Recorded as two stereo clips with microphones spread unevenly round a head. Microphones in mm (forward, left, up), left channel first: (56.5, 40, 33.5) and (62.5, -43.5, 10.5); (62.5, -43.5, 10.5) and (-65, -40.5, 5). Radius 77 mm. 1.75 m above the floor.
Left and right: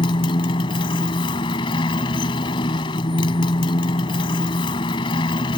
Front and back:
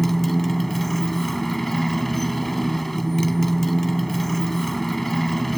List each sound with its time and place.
0.0 s a motorcycle: 85° left